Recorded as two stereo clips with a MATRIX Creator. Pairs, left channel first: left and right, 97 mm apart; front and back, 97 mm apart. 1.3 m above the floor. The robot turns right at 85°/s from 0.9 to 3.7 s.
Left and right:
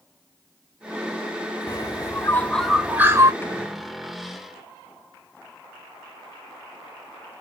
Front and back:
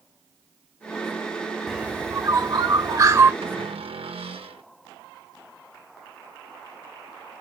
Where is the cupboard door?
160° left, 1.4 m; by 4.6 s 175° right, 1.4 m.